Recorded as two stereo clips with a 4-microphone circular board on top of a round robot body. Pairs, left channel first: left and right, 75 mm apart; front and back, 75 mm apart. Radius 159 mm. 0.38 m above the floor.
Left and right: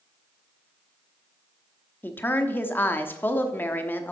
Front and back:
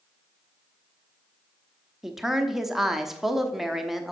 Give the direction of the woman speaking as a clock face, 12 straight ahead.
9 o'clock.